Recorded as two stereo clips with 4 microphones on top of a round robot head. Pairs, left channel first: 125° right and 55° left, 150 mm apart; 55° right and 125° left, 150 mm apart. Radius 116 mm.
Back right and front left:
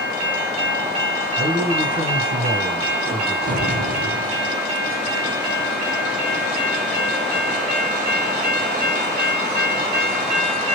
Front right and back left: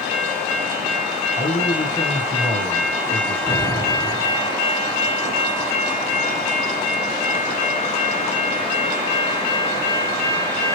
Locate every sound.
1.4 s a man speaking: 20° left, 1.6 m
3.5 s an explosion: 25° left, 1.2 m